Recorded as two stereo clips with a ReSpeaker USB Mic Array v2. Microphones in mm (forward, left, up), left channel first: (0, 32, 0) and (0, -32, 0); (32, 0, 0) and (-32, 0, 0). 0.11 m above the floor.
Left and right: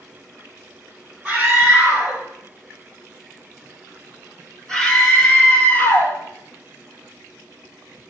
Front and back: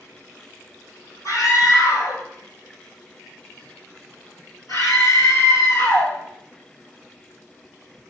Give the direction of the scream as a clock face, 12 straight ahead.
1 o'clock.